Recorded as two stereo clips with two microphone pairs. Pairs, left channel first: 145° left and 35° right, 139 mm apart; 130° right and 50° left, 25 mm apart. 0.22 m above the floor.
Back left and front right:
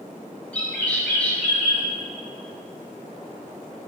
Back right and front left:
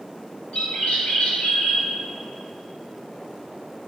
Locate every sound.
0.5 s a bird: 135° right, 3 m